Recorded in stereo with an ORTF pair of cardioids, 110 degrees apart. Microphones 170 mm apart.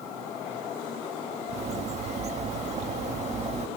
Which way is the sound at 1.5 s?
40° right.